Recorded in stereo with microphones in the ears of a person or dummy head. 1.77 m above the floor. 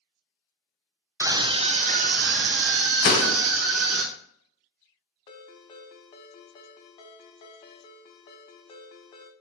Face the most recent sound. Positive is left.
turn(degrees=20)  # may be behind; listen again after turning